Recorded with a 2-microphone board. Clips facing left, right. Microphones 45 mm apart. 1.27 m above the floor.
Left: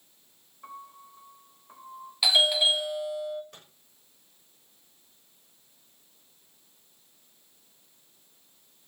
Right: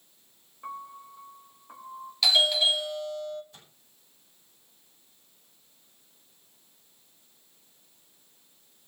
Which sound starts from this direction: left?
A microwave, at 3.5 s.